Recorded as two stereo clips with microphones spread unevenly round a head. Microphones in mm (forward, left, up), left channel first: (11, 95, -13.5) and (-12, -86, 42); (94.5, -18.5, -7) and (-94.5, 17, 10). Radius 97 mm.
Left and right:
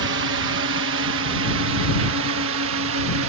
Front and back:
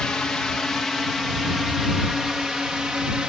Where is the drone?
95° right; by 3.3 s 105° right.